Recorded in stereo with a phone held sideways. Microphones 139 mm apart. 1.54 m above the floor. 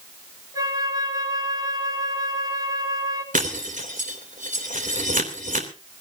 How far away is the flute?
About 3.5 m.